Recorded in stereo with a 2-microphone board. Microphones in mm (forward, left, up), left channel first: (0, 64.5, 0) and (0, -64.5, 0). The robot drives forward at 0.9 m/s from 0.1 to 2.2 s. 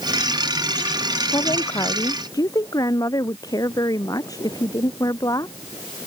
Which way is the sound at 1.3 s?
30° left (ahead or behind).